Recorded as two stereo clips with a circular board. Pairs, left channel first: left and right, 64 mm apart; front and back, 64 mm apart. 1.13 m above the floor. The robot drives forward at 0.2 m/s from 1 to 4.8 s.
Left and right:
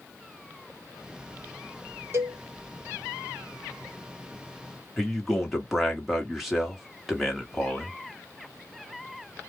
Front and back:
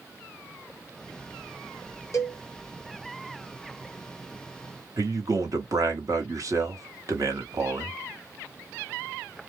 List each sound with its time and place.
2.1 s a cowbell: 40° right, 0.9 m; by 2.4 s 45° right, 0.9 m
5.0 s a man speaking: 175° right, 1.2 m